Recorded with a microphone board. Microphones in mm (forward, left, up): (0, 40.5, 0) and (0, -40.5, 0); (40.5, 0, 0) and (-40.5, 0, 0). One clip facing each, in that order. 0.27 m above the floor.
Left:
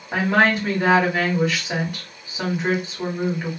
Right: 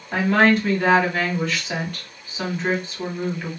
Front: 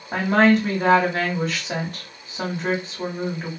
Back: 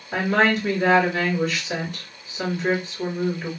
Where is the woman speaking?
15° left, 2 m.